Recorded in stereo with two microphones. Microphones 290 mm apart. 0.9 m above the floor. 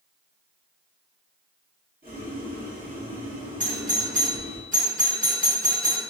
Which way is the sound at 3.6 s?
25° right (ahead or behind).